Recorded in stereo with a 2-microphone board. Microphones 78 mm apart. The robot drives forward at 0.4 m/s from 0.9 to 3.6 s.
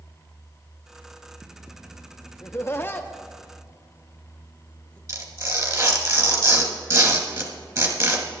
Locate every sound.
2.4 s laughter: 35° left (ahead or behind), 0.6 m; by 5.0 s 20° left (ahead or behind), 0.9 m
5.1 s tearing paper: 50° right (ahead or behind), 2 m